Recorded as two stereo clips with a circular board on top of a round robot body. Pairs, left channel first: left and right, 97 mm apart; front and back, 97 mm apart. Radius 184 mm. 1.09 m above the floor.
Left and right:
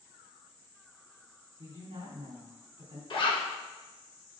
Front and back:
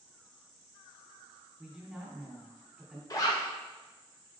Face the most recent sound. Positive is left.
turn(degrees=55)